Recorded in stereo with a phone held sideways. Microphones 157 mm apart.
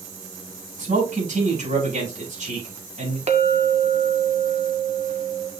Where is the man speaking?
55° right (ahead or behind), 6 m.